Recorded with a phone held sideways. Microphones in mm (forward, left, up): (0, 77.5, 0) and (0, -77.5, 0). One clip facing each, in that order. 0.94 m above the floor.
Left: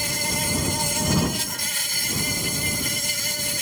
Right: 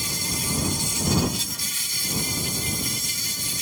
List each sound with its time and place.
0.0 s an insect: 75° left (ahead or behind)